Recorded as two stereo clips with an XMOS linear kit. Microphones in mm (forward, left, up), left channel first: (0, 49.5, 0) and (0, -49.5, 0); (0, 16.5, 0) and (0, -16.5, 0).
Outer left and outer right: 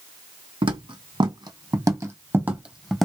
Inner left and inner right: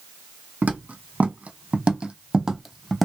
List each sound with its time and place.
0.6 s footsteps: 60° right (ahead or behind), 1.7 m; by 3.0 s 5° left (ahead or behind), 0.9 m